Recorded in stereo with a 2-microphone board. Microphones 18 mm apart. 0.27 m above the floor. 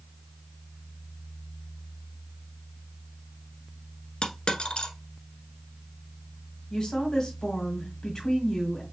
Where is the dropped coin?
80° left, 1.1 m.